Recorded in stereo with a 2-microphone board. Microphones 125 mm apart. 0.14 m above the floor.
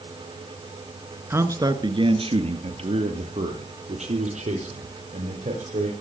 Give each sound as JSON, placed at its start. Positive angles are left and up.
{"t": 1.3, "sound": "a man speaking", "side_deg": -20, "distance_m": 1.8}